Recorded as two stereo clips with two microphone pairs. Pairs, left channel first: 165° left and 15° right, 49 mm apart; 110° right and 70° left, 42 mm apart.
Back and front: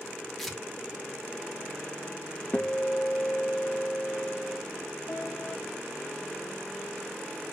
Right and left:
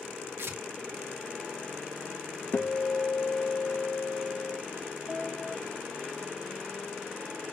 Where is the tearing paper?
80° left, 0.9 m.